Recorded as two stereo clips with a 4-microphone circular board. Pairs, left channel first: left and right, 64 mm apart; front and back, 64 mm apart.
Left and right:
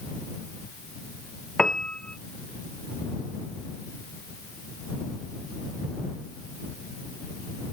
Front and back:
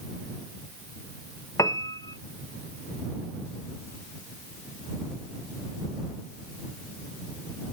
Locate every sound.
1.6 s a piano: 10° left